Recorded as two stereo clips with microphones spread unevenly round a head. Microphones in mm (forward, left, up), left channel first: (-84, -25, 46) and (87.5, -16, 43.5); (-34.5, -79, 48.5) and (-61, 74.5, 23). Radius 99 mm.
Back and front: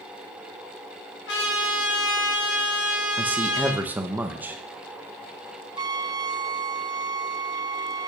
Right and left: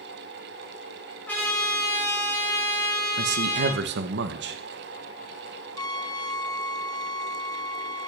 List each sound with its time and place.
1.3 s a trumpet: 160° right, 5.5 m
3.2 s a man speaking: 85° left, 0.9 m
5.8 s a trumpet: 25° right, 0.5 m